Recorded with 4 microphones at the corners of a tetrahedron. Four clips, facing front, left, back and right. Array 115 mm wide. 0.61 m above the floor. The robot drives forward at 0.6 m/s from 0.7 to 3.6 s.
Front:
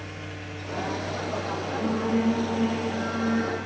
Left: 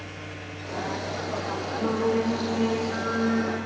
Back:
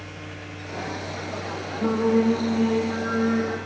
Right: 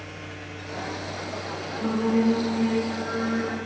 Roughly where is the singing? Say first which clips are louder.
Right 2 dB, back 5 dB; behind left.